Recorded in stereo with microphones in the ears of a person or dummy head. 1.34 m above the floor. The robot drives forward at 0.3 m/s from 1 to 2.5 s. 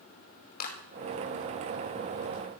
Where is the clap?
50° left (ahead or behind), 5 m.